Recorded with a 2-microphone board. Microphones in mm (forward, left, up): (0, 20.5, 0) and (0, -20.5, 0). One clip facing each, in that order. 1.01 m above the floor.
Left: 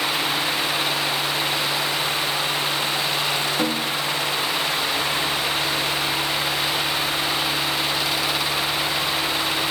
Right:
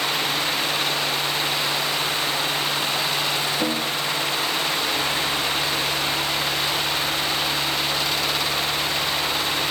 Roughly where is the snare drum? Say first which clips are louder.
Left 1 dB; left.